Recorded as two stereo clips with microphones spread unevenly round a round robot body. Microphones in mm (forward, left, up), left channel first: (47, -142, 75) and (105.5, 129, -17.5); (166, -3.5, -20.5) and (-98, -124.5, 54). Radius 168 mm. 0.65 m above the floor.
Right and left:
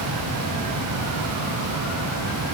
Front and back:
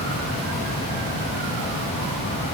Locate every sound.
Only background noise.